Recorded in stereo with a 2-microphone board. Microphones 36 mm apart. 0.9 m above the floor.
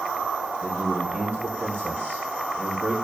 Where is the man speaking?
80° right, 5 m.